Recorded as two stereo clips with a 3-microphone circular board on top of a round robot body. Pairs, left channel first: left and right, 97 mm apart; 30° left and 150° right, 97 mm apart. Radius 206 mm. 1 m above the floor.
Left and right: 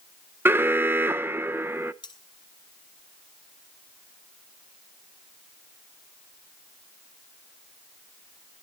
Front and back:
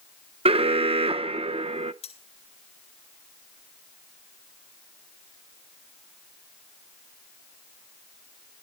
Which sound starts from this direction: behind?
An alarm, at 0.5 s.